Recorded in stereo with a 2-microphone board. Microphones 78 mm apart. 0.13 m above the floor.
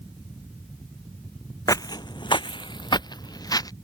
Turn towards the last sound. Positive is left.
turn(degrees=50)  # may be behind; listen again after turning